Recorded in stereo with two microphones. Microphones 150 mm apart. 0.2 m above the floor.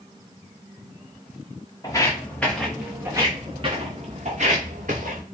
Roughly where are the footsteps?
Left.